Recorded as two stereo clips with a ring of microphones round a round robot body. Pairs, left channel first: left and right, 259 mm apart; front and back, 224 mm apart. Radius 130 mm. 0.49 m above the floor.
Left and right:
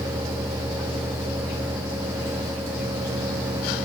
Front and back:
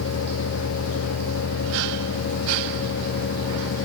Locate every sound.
Only background noise.